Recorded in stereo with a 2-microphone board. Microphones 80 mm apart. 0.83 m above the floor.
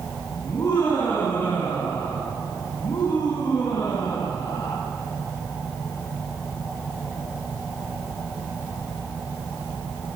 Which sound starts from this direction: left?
Laughter, at 0.4 s.